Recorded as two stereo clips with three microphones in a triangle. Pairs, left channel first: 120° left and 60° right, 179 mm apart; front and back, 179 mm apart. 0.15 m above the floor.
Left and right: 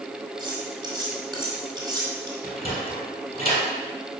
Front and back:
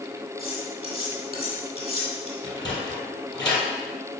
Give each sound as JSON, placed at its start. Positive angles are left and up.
{"t": 0.4, "sound": "cutlery clinking", "azimuth_deg": -130, "distance_m": 2.5}
{"t": 2.4, "sound": "a sliding door", "azimuth_deg": 65, "distance_m": 2.5}